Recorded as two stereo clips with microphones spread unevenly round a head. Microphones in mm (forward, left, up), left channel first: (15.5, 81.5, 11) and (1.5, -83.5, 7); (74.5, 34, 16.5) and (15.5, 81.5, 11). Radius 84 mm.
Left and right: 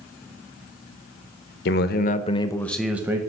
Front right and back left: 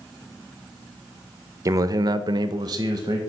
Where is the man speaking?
100° left, 0.7 m; by 3.2 s 165° right, 0.7 m.